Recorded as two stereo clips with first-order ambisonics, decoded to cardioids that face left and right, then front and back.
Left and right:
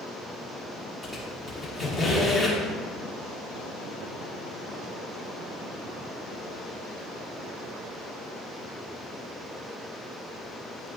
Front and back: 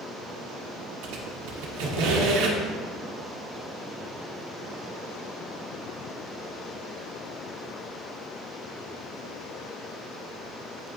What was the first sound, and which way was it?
A squeak, straight behind.